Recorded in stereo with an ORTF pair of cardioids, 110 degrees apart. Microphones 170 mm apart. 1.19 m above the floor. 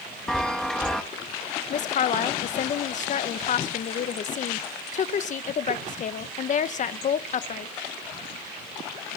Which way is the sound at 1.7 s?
50° left.